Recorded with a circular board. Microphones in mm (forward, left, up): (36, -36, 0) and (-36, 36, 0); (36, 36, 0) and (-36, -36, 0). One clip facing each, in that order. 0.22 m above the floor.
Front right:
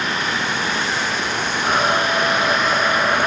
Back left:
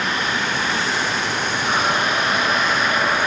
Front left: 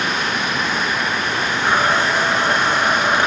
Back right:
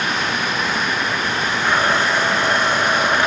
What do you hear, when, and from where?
1.6 s a blender: 25° right, 1.7 m